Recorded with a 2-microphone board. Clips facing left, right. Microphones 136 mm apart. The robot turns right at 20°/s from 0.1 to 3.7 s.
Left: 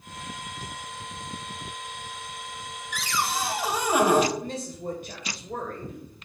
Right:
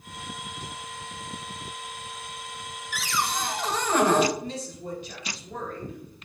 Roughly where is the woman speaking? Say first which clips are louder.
Left 1 dB; left.